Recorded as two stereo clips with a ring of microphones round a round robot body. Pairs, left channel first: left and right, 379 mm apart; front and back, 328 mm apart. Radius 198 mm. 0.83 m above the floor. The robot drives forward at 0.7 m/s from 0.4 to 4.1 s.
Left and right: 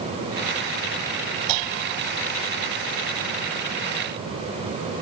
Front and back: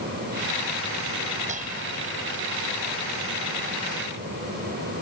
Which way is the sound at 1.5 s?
105° right.